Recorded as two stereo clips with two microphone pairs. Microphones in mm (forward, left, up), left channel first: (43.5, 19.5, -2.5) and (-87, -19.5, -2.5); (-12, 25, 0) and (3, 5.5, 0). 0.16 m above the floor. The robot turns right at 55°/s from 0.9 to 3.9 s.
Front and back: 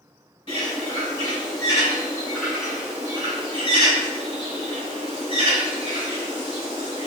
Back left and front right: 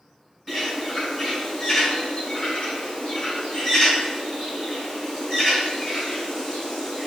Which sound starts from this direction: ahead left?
A bird, at 0.5 s.